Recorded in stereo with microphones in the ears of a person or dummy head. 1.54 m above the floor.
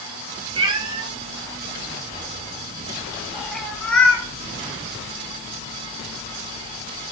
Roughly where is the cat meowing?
Right.